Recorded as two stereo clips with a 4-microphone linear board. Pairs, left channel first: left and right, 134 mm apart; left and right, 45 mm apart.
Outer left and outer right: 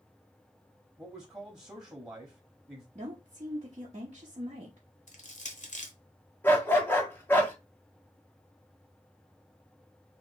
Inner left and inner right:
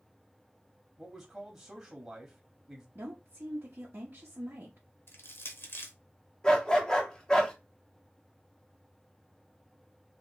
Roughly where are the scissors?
I don't hear scissors.